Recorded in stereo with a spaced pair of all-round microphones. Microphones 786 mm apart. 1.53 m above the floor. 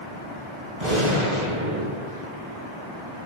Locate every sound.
0.8 s a gunshot: 75° right (ahead or behind), 6 m